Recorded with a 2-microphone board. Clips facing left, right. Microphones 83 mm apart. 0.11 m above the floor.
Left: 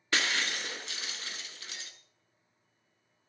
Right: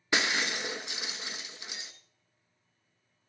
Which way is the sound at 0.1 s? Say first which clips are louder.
Right 2 dB; 20° right (ahead or behind).